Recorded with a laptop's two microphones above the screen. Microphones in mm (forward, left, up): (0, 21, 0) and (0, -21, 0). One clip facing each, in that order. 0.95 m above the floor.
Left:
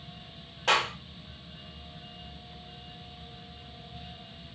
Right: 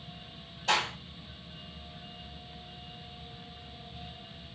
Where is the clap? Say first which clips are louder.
Left 3 dB; 80° left, 2.5 m.